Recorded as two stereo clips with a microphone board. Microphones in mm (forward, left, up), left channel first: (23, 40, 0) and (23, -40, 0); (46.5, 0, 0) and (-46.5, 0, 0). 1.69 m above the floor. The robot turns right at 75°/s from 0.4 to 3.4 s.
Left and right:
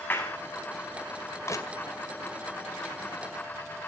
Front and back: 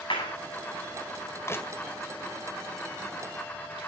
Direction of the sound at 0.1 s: 25° left.